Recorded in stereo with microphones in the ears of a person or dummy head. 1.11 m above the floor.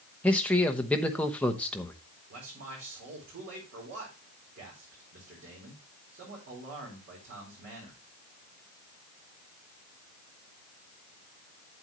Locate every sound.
0.2 s a man speaking: 5° left (ahead or behind), 0.9 m
2.3 s a man speaking: 55° right (ahead or behind), 4 m